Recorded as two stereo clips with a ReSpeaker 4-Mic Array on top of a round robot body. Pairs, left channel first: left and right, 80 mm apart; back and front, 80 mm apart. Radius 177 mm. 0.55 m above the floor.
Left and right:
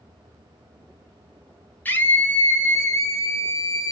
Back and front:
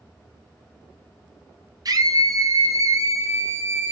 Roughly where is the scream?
Ahead left.